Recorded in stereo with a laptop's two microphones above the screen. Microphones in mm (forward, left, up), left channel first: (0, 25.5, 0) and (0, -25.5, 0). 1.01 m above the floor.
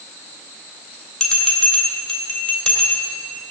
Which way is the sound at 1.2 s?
5° left (ahead or behind).